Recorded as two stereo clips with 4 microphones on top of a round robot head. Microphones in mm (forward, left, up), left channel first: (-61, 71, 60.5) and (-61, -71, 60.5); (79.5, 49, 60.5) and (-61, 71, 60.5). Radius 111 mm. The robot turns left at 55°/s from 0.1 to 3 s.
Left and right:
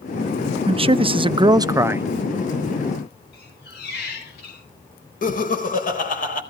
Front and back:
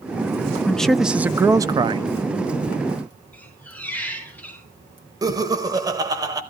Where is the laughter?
110° left, 4 m.